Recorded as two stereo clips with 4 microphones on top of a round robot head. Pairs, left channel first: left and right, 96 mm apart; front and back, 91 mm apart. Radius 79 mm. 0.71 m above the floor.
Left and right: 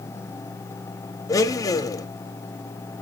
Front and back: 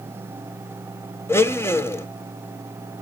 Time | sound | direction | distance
1.3 | a blender | 50° left | 0.9 m